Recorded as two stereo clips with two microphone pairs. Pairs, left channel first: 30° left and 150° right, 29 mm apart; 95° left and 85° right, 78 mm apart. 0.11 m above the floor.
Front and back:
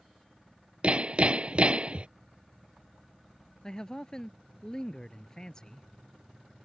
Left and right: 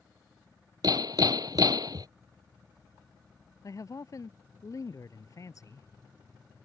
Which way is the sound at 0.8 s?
105° right.